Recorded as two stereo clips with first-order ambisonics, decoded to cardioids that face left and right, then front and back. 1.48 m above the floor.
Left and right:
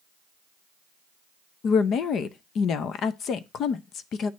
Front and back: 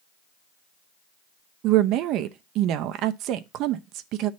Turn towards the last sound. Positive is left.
turn(degrees=145)